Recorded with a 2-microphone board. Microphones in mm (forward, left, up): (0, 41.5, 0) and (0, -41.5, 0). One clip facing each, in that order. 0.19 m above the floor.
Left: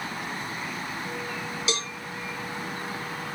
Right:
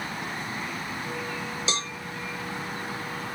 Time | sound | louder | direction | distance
1.7 | a cowbell | left 1 dB | 30° right (ahead or behind) | 1.4 m